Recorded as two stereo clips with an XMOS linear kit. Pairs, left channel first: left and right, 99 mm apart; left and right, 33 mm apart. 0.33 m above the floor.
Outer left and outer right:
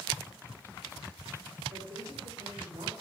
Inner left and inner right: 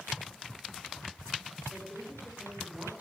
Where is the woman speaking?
70° right (ahead or behind), 6 m.